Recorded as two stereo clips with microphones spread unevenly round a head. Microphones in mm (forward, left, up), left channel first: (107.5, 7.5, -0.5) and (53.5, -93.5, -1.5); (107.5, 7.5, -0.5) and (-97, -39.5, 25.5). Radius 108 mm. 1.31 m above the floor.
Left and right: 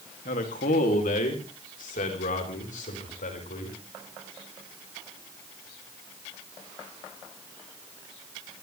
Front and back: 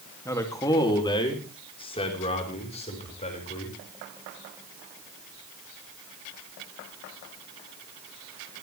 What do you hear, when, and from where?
0.2 s a man speaking: 90° left, 2.5 m; by 3.8 s 75° left, 6.5 m